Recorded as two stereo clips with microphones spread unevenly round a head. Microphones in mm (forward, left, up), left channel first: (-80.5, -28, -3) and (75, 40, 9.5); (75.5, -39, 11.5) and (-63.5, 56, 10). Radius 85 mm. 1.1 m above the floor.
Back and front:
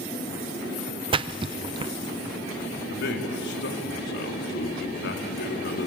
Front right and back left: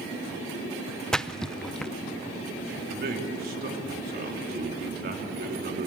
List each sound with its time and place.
1.1 s a splash: 50° left, 0.6 m
2.9 s a man speaking: 175° right, 3 m